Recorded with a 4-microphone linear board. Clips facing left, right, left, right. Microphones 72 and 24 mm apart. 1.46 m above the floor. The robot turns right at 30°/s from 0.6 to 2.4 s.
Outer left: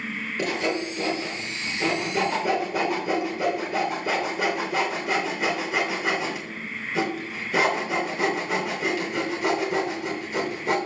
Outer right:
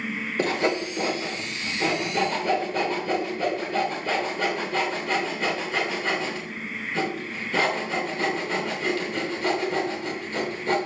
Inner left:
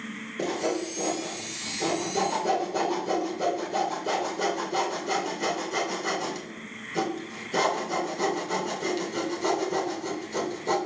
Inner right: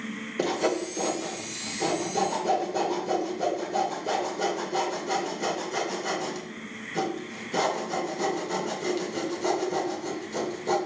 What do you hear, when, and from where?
0.4 s sawing: 35° right (ahead or behind), 1.9 m; by 10.8 s 10° left (ahead or behind), 1.9 m